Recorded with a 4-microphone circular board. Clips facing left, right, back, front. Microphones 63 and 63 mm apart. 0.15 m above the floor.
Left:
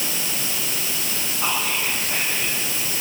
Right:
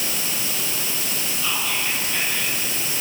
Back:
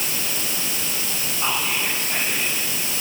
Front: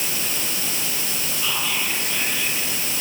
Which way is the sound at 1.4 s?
130° left.